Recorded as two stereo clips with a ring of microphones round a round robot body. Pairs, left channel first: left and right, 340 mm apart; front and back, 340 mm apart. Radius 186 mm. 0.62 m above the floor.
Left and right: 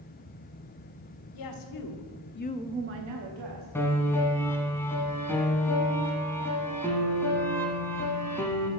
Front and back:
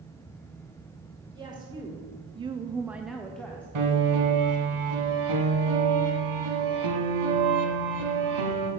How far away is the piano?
About 1.8 m.